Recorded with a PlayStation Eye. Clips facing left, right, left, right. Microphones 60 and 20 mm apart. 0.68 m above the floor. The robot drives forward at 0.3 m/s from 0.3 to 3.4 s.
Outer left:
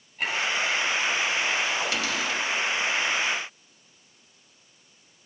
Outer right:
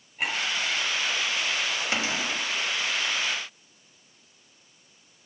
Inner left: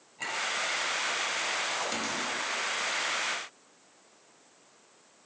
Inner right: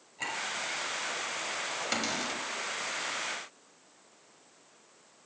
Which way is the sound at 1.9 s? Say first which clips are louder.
Outer left 1 dB, even; 30° right (ahead or behind).